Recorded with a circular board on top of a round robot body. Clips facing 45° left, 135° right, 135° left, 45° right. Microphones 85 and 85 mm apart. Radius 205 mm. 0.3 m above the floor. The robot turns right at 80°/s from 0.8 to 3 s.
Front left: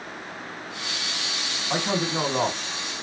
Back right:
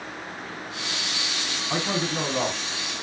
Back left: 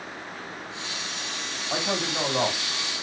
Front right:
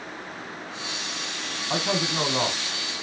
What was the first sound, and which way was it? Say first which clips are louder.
A man speaking: front left 2 dB, front right 2 dB; 30° right.